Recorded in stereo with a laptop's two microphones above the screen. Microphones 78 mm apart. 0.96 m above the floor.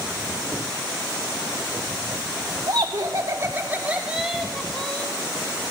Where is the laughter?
60° right (ahead or behind), 2.5 m; by 5.1 s 15° left (ahead or behind), 3 m.